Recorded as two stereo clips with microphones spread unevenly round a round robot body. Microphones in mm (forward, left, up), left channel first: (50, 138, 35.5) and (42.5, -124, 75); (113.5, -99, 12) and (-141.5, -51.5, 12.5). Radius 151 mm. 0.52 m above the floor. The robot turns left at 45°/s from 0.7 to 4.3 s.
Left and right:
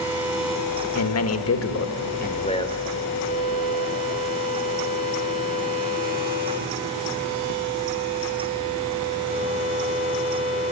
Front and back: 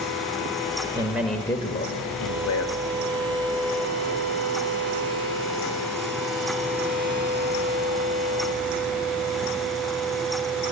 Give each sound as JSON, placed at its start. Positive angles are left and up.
{"t": 0.9, "sound": "a man speaking", "azimuth_deg": 95, "distance_m": 1.5}